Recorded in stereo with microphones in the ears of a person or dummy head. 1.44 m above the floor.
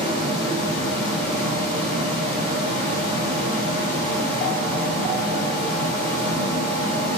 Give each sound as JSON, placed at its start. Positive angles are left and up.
{"t": 0.0, "sound": "a machine running", "side_deg": -25, "distance_m": 1.7}